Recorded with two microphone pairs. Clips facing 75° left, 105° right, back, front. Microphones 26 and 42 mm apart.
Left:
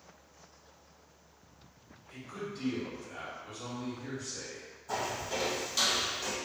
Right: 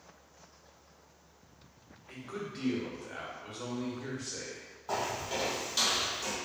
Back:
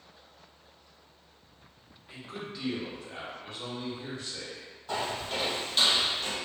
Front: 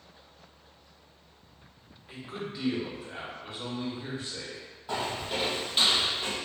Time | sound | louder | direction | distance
2.1 | a man speaking | right 1 dB, front 2 dB | 80° right | 1.0 m
4.9 | footsteps | right 1 dB, even | 85° right | 1.8 m